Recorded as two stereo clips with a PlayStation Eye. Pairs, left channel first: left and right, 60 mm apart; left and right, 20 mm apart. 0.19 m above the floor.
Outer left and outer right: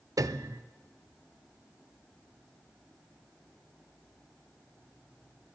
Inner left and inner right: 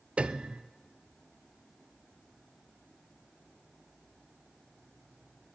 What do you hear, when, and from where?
0.2 s a piano: 80° right, 0.5 m